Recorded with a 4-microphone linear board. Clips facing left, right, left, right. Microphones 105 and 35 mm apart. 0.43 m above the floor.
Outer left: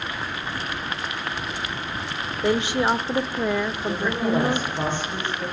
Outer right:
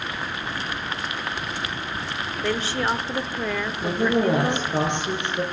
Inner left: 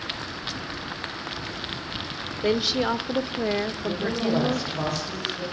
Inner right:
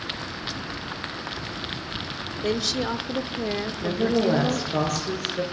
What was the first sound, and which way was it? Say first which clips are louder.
A woman speaking: outer left 4 dB, inner left 3 dB; 20° left (ahead or behind).